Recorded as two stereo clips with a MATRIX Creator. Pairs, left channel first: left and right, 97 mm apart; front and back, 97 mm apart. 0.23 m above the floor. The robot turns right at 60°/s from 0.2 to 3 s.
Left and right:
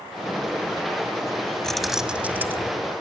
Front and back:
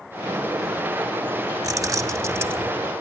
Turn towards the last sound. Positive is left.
turn(degrees=-110)